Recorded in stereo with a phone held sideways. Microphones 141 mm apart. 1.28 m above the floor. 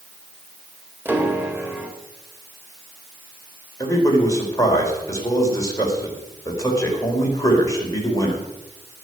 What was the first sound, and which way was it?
A piano, 15° right (ahead or behind).